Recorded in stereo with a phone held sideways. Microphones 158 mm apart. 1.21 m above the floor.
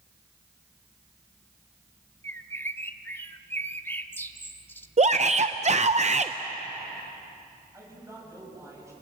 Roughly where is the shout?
Right.